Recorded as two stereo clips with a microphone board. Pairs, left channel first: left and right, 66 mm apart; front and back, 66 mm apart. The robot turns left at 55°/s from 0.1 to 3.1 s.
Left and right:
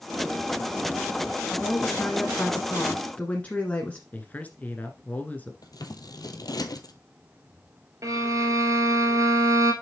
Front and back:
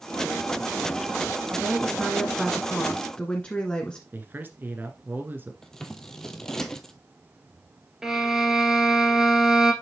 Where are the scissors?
80° left, 0.9 m.